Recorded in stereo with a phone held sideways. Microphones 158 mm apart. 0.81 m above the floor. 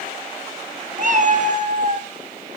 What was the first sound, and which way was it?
A cat meowing, 55° right (ahead or behind).